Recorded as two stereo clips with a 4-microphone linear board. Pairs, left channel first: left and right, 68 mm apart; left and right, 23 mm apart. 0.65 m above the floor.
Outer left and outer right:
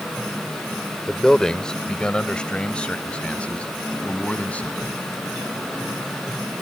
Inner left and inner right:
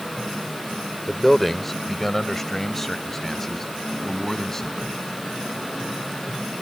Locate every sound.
1.1 s a man speaking: 5° left (ahead or behind); by 5.0 s 20° left (ahead or behind)